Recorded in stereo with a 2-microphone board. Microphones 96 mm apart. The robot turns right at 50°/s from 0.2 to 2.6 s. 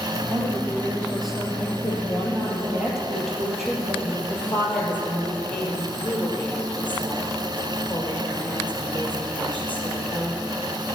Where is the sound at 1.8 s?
145° left, 3.5 m; by 4.2 s 175° right, 3.5 m.